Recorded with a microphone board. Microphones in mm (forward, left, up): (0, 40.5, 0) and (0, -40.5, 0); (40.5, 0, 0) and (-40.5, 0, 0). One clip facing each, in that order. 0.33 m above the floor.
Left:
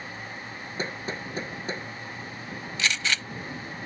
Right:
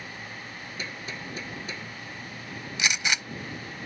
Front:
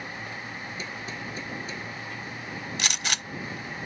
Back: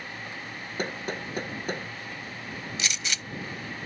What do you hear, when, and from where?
0.8 s hammering: 145° left
2.8 s a gunshot: 20° right